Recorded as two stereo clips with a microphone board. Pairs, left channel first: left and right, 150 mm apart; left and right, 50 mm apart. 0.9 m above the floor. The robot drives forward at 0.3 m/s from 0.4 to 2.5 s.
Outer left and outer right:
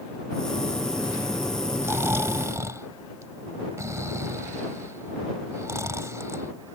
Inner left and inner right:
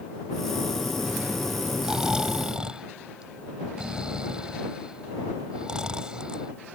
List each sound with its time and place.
1.8 s snoring: 15° right (ahead or behind); by 6.8 s 20° right (ahead or behind)